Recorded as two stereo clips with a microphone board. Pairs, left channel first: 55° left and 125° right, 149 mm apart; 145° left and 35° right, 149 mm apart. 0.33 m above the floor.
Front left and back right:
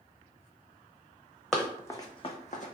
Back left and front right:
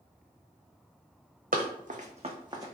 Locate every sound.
1.5 s running footsteps: 35° right, 0.8 m; by 2.7 s 35° left, 0.8 m